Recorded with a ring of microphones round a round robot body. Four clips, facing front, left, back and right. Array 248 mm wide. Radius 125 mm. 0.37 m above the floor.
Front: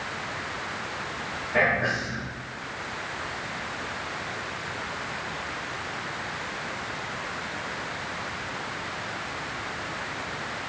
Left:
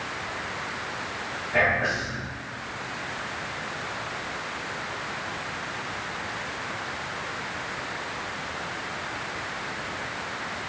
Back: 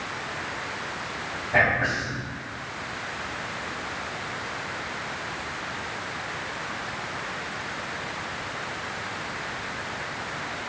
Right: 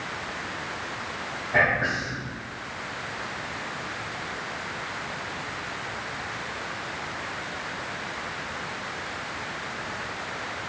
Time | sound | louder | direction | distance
1.5 | whispering | even, back 1 dB | 160° right | 2.5 m